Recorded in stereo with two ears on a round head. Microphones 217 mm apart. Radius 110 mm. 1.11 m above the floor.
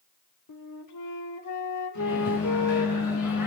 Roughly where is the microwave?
Left.